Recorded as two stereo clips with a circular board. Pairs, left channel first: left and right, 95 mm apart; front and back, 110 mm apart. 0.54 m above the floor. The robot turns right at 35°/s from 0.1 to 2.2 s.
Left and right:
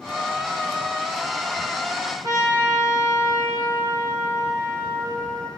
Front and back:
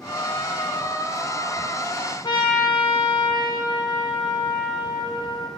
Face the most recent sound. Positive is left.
turn(degrees=-45)